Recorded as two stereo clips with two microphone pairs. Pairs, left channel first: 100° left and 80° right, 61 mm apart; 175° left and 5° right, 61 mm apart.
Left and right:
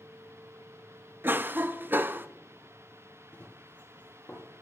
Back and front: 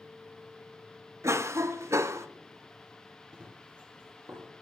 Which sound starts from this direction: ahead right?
A cough, at 1.2 s.